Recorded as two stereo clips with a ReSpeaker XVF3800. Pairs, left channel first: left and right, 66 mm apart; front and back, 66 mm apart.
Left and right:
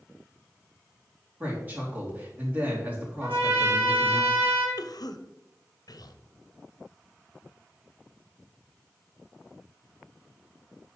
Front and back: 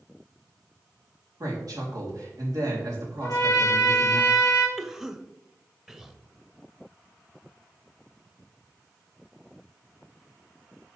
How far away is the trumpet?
About 1.7 m.